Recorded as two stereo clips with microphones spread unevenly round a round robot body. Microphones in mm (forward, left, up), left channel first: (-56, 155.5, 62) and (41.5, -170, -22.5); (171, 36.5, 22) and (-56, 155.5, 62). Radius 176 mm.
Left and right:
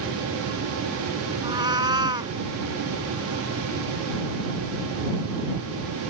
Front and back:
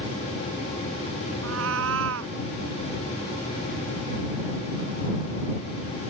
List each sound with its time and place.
1.4 s a cat meowing: 155° right